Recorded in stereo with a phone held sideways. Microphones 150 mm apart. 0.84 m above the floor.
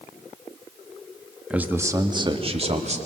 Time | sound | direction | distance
1.5 | a man speaking | 5° right (ahead or behind) | 1.6 m